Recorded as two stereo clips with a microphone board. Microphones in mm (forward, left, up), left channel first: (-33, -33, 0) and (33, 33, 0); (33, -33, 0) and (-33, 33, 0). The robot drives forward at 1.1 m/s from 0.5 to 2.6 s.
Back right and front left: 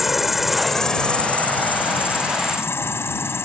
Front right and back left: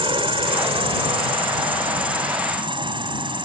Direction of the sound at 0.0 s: 130° left.